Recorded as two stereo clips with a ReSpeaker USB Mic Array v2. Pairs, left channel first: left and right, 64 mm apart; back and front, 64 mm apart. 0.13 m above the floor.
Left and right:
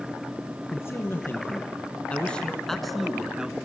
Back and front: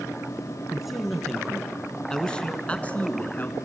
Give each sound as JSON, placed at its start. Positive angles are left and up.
{"t": 0.7, "sound": "a man speaking", "azimuth_deg": 85, "distance_m": 2.0}